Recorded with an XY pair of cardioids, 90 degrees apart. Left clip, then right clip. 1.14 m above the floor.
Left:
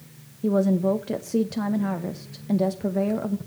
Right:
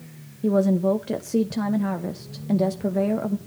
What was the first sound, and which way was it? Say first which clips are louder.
A woman speaking: right 1 dB; 10° right.